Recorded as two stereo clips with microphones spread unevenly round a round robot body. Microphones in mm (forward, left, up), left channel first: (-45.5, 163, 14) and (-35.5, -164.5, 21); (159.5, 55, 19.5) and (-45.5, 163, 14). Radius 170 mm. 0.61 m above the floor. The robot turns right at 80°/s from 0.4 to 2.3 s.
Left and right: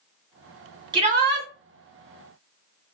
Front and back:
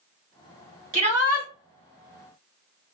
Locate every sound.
0.9 s a shout: 160° right, 1.5 m; by 1.5 s 120° right, 1.5 m